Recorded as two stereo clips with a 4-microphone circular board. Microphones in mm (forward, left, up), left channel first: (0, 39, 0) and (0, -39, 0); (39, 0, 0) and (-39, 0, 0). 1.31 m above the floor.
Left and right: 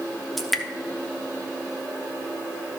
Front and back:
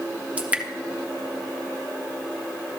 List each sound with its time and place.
0.4 s dripping: 175° left, 0.8 m